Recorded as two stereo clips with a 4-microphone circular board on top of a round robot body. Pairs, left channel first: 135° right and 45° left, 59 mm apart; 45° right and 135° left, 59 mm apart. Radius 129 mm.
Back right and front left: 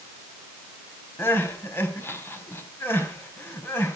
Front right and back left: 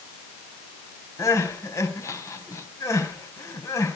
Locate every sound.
1.2 s crying: 80° right, 4.5 m